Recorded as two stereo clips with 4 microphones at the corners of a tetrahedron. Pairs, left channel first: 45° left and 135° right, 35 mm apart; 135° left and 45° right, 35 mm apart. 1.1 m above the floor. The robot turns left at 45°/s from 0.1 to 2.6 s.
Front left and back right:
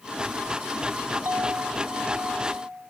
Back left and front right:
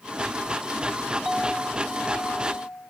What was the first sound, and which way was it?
A clink, 125° right.